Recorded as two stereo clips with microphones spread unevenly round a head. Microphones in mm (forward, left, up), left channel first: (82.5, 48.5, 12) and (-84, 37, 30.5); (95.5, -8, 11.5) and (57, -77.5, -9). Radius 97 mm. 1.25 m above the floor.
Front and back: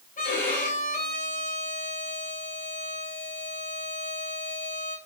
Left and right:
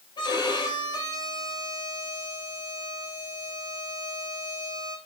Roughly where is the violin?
Ahead left.